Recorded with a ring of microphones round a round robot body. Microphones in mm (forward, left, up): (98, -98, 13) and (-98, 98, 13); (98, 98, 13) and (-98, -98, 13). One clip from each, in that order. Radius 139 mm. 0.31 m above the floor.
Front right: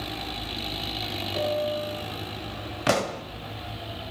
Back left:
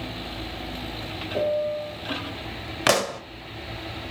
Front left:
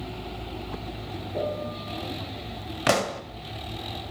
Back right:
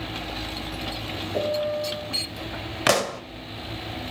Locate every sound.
1.3 s a piano: 170° right, 6 m
2.9 s a pop: 170° left, 1.2 m